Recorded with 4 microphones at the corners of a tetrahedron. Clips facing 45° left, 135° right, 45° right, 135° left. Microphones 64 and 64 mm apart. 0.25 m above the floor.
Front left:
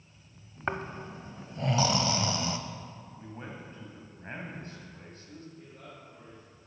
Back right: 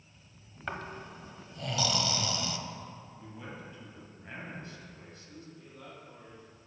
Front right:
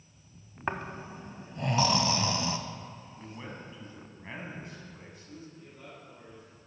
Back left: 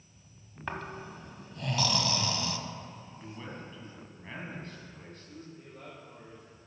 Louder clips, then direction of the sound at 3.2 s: Front left 3 dB, even; 25° left.